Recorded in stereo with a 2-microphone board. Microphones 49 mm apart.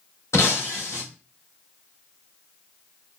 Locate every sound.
0.3 s breaking glass: 75° left (ahead or behind), 1.9 m